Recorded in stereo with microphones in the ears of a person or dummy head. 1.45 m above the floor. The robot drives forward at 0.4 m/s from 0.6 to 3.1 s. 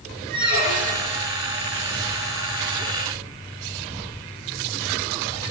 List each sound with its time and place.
0.3 s a squeak: 50° right (ahead or behind), 1.1 m; by 1.2 s 45° right (ahead or behind), 1.2 m